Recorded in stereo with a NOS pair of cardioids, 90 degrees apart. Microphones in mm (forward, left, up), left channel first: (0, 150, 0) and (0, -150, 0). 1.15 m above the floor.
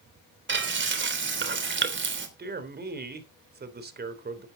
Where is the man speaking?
30° right, 3.5 m.